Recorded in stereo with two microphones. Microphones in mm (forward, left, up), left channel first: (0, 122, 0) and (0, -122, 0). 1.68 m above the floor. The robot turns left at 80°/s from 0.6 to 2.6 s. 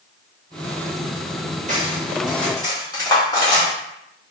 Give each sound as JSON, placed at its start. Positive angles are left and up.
{"t": 1.7, "sound": "cutlery clinking", "side_deg": -35, "distance_m": 1.3}